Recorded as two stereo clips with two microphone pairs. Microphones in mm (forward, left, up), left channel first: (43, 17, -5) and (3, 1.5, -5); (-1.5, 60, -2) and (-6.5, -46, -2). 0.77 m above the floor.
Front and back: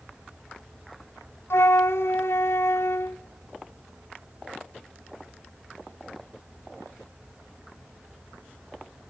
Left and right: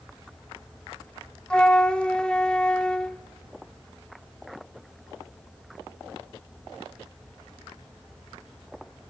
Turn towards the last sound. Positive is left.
turn(degrees=5)